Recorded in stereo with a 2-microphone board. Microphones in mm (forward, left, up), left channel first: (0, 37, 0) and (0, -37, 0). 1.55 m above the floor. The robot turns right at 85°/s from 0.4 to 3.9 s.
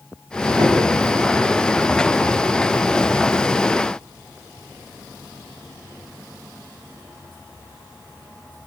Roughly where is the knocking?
Right.